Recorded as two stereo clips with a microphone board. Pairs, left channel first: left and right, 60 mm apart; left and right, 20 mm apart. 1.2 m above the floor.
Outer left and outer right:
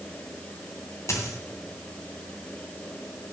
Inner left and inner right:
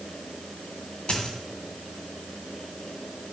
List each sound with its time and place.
1.1 s a dropped coin: 55° left (ahead or behind), 2.5 m